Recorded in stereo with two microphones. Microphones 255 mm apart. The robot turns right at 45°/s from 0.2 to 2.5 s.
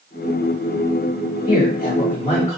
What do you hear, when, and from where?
1.5 s a man speaking: 90° left, 1.6 m; by 2.6 s 135° left, 1.6 m